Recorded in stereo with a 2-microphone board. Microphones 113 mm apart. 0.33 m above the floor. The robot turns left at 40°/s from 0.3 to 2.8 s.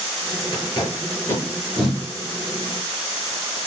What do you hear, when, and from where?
0.5 s tape being pulled: 50° left (ahead or behind), 4 m; by 2.0 s 10° right (ahead or behind), 4 m